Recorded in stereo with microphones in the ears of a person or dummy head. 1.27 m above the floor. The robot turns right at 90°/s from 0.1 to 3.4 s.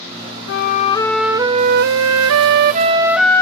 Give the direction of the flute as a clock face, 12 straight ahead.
8 o'clock.